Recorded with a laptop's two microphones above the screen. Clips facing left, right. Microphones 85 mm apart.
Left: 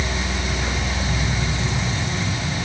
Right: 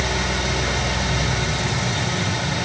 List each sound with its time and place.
0.0 s a fan: 85° right, 2.5 m